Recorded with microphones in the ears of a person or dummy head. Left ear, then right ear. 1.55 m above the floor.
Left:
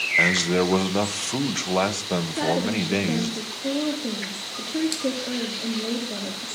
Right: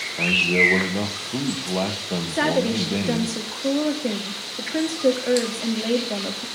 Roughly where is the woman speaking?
Right.